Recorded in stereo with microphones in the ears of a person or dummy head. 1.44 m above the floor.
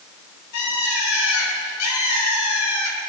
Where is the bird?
80° left, 3.5 m.